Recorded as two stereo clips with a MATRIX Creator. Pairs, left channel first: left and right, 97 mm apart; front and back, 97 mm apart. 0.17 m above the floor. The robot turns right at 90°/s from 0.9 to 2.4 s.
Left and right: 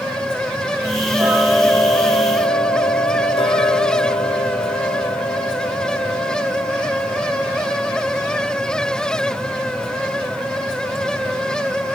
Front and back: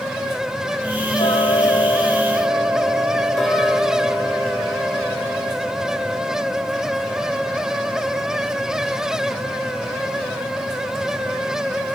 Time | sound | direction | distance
1.2 | ticking | 25° right | 4.5 m